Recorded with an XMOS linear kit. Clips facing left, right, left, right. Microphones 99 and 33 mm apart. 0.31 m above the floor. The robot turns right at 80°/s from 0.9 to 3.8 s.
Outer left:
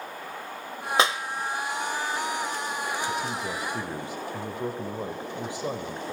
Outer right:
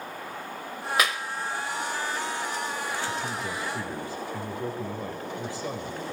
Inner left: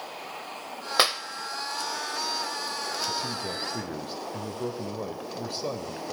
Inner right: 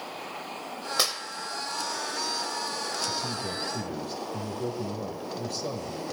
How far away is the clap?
About 0.7 m.